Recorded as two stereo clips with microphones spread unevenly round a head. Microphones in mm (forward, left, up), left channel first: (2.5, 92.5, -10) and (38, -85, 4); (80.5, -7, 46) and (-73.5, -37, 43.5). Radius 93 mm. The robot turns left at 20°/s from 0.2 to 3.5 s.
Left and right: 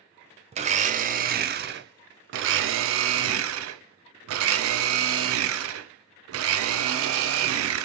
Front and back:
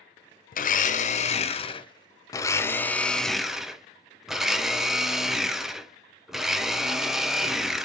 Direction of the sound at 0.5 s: 20° right.